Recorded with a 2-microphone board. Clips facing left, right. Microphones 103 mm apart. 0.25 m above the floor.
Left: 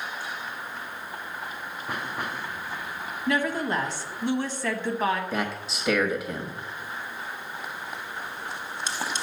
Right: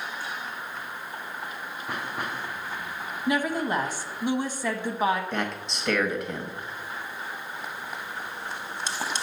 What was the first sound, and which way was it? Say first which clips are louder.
A woman speaking: even; 15° right (ahead or behind).